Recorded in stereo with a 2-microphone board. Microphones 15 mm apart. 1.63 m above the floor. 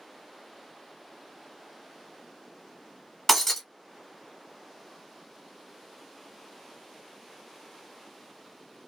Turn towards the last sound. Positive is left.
turn(degrees=15)  # may be behind; listen again after turning